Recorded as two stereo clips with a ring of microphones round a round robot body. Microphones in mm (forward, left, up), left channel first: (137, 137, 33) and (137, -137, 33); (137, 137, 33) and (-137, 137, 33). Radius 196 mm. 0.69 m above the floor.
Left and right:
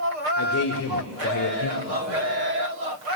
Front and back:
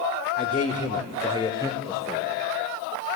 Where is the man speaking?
55° left, 2 m; by 2.3 s 85° left, 3 m.